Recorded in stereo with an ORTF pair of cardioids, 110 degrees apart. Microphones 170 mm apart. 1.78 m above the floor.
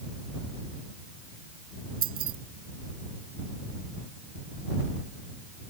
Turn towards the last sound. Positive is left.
turn(degrees=-60)